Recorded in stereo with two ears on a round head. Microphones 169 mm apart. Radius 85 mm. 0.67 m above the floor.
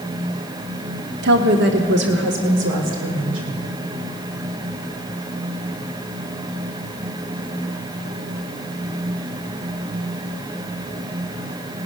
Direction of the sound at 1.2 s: 60° right (ahead or behind).